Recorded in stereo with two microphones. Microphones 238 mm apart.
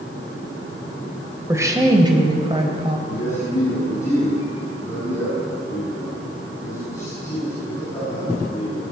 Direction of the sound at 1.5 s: 10° right (ahead or behind).